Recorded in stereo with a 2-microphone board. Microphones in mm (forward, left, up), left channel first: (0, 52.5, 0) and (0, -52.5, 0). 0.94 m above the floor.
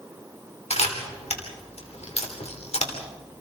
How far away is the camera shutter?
About 3 m.